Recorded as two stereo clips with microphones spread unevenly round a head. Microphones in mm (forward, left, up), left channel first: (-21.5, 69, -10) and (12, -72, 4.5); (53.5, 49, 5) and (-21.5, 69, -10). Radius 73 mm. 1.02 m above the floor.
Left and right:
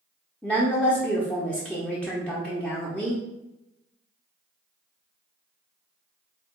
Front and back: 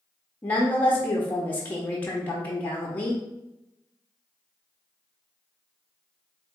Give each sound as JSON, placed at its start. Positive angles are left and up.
{"t": 0.4, "sound": "a woman speaking", "azimuth_deg": 50, "distance_m": 0.7}